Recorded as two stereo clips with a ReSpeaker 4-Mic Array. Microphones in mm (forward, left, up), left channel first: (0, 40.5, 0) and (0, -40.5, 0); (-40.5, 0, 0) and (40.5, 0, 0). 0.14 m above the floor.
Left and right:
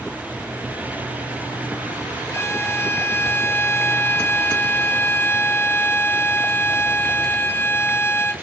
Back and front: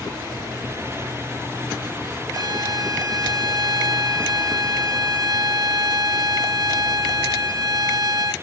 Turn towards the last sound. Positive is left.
turn(degrees=35)